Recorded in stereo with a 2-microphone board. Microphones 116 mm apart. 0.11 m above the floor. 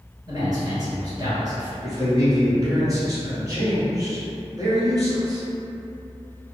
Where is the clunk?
I don't hear a clunk.